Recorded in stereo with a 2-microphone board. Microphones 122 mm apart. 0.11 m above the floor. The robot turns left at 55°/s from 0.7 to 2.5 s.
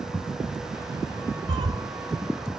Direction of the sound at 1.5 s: 40° right (ahead or behind).